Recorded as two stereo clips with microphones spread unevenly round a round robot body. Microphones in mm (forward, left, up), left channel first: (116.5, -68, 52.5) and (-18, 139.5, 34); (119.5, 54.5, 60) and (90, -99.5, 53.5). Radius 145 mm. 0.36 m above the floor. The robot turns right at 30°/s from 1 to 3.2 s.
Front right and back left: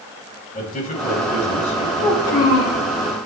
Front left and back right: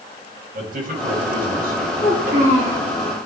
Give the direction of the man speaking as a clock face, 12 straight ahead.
4 o'clock.